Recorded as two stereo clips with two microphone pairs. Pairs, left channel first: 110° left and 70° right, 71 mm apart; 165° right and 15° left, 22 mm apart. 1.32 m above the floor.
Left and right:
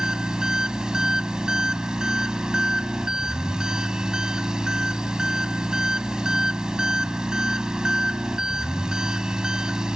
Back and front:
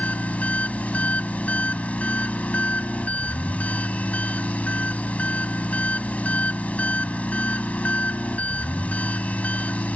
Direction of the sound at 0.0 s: 150° right.